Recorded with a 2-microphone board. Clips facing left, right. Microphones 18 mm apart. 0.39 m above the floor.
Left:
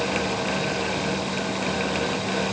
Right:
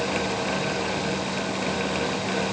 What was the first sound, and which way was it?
Only background noise.